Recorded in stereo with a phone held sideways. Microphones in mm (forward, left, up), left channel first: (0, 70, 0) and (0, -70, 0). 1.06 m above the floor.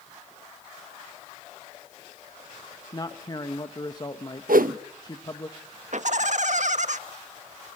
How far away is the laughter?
About 1.5 m.